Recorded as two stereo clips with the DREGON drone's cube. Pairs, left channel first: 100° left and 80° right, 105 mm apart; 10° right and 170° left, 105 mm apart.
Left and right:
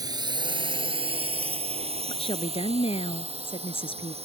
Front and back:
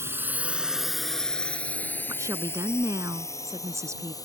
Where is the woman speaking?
110° left.